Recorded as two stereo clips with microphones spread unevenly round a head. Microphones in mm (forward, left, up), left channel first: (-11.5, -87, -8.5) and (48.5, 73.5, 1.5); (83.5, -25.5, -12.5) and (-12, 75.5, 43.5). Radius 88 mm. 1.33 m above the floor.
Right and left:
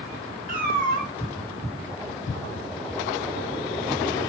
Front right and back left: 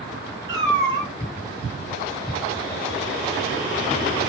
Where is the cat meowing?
95° left, 0.8 m.